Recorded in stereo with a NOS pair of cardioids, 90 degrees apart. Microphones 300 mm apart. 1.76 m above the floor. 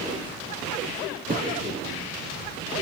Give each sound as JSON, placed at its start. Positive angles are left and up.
{"t": 1.3, "sound": "a thud", "azimuth_deg": -30, "distance_m": 5.5}